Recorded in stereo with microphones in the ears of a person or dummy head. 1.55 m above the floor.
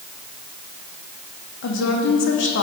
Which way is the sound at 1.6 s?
70° left (ahead or behind).